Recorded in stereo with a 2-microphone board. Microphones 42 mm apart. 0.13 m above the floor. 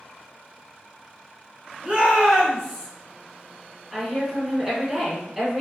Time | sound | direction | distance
1.8 | a shout | 25° right (ahead or behind) | 1.4 m
3.9 | a woman speaking | 15° right (ahead or behind) | 1.3 m